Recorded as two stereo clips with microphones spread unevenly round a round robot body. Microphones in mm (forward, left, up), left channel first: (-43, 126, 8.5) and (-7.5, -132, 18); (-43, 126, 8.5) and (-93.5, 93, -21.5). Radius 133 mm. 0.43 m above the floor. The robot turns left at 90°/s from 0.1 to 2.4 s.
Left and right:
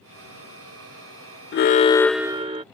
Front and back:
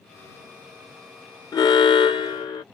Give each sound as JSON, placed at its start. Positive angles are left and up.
{"t": 1.5, "sound": "an alarm", "azimuth_deg": 65}